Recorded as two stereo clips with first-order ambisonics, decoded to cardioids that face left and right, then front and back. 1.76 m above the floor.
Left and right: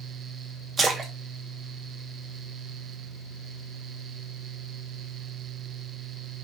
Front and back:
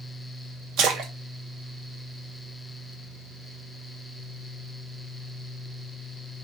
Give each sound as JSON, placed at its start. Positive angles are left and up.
{"t": 0.8, "sound": "a splash", "azimuth_deg": -155, "distance_m": 0.8}